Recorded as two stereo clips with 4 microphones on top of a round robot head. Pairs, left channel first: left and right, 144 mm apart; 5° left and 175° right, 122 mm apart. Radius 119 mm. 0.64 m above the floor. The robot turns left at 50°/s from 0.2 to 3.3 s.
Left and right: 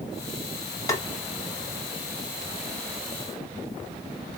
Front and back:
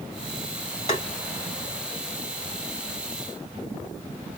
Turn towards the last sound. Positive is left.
turn(degrees=-95)